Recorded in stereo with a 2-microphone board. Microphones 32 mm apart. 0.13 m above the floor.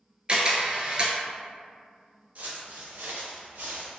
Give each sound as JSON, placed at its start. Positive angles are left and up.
{"t": 0.3, "sound": "a camera shutter", "side_deg": -40, "distance_m": 0.5}
{"t": 2.4, "sound": "footsteps", "side_deg": -55, "distance_m": 1.0}